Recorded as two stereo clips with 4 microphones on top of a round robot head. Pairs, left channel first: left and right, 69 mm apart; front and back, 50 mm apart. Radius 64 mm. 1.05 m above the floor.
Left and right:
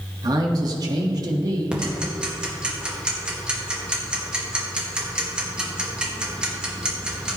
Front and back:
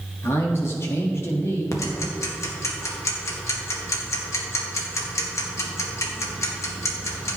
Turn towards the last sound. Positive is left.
turn(degrees=-15)